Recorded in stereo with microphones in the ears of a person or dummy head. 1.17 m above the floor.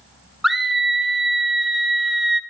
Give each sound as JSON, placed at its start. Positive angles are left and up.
{"t": 0.4, "sound": "a scream", "side_deg": 0, "distance_m": 0.9}